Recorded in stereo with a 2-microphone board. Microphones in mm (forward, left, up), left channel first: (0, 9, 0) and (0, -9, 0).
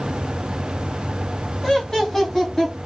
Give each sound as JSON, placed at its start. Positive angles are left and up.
{"t": 1.6, "sound": "laughter", "side_deg": 35, "distance_m": 1.6}